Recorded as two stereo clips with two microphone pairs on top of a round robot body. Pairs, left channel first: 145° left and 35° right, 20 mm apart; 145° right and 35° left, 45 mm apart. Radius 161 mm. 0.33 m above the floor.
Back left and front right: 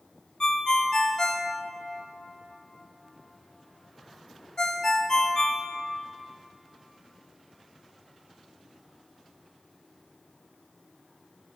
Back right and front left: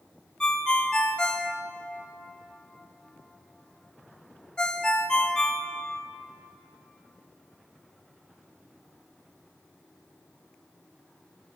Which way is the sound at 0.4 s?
170° left.